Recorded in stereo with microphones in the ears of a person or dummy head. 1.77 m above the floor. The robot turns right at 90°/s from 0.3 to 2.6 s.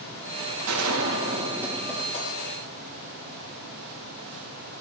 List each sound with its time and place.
0.7 s a gunshot: 105° right, 4 m; by 3.0 s 70° left, 4 m